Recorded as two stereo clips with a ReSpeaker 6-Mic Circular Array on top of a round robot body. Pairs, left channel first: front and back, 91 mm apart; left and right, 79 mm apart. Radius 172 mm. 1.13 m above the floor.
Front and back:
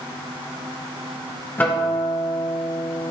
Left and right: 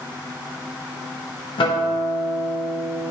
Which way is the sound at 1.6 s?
70° left.